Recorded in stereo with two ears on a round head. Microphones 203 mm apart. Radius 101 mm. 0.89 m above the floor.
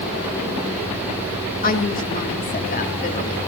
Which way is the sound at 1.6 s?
40° left (ahead or behind).